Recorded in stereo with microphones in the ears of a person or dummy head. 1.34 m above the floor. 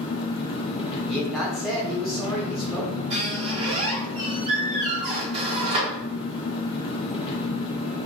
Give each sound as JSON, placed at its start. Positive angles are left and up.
{"t": 0.0, "sound": "an engine running", "side_deg": 30, "distance_m": 0.7}
{"t": 1.1, "sound": "a man speaking", "side_deg": 5, "distance_m": 0.6}
{"t": 3.1, "sound": "a squeak", "side_deg": -35, "distance_m": 0.9}